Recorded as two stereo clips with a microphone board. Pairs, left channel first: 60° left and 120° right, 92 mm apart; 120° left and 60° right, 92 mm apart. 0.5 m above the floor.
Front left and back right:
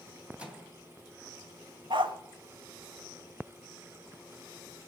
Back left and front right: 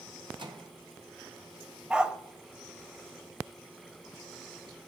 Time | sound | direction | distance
0.4 | a microwave | 45° right | 2.5 m
1.9 | a dog barking | 140° right | 1.0 m